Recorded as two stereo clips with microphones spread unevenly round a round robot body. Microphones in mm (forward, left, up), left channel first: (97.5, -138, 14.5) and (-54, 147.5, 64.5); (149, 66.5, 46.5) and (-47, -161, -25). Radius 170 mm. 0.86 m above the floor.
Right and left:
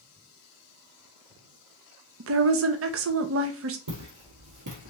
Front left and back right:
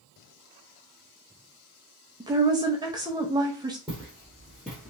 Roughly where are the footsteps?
Behind left.